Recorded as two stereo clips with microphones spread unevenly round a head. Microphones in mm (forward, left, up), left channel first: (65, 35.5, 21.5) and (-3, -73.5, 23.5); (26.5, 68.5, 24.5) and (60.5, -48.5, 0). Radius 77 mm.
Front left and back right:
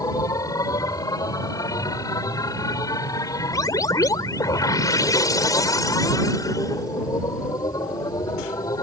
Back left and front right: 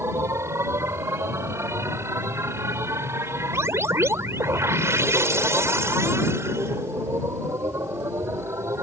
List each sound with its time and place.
0.0 s a machine running: 5° right